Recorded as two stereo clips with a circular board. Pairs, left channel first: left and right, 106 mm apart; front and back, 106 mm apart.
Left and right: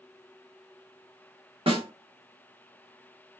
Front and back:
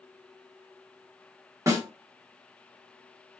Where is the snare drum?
120° right, 1.2 m.